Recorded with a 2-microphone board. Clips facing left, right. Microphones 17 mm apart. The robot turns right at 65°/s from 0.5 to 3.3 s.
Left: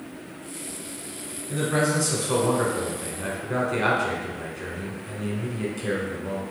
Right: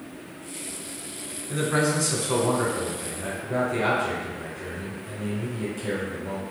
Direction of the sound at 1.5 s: 20° right (ahead or behind).